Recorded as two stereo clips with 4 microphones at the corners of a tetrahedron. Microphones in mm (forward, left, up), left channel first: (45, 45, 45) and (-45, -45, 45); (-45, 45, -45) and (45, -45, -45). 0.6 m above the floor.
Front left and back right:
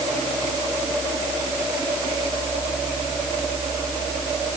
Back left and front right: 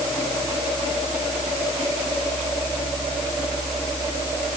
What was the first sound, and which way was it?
Only background noise.